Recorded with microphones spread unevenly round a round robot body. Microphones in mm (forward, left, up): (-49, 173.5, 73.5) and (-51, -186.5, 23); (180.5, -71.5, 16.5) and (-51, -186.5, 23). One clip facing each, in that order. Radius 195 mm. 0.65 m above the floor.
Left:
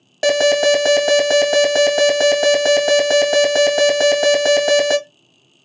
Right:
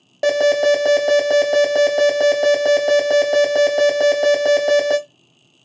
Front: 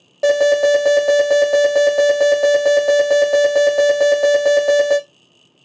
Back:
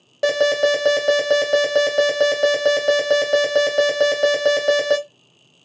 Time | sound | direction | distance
0.2 | an alarm | 140° left | 1.4 m